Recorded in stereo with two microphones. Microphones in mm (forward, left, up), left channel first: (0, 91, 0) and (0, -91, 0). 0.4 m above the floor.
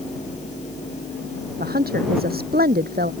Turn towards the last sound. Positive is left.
turn(degrees=-55)  # may be behind; listen again after turning